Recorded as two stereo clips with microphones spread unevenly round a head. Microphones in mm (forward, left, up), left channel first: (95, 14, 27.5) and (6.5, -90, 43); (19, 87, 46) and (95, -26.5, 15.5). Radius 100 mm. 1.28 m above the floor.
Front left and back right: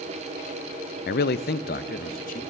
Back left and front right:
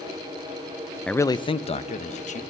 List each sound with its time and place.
1.1 s a man speaking: 40° left, 0.5 m; by 2.4 s 95° left, 1.9 m